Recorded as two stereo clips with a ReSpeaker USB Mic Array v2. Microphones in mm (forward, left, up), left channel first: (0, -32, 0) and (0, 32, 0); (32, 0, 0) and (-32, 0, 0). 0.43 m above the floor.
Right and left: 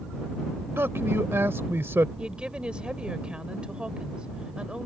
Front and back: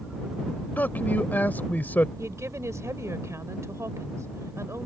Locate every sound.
0.8 s a man speaking: 55° left
2.2 s a woman speaking: 160° left